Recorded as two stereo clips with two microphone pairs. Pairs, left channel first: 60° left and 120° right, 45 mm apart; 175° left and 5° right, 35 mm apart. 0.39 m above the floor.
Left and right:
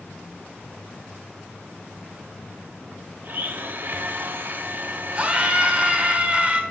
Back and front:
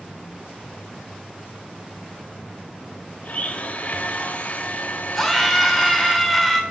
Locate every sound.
3.2 s a blender: 150° right, 0.7 m
5.2 s a scream: 105° right, 1.3 m